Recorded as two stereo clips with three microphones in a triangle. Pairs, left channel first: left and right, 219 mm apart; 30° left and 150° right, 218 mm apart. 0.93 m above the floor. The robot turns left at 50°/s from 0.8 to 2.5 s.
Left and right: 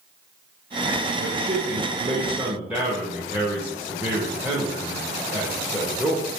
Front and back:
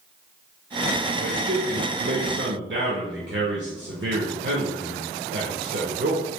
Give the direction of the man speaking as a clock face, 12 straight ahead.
4 o'clock.